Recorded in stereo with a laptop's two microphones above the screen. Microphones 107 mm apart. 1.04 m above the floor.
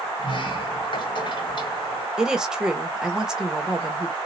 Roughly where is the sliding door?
Left.